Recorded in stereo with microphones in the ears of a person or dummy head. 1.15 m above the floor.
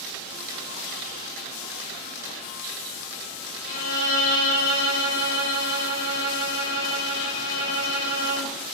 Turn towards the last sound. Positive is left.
turn(degrees=75)  # may be behind; listen again after turning